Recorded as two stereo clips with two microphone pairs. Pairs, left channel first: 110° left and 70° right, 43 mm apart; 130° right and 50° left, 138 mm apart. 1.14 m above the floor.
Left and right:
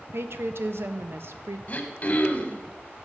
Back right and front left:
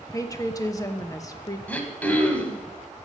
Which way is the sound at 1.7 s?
150° left.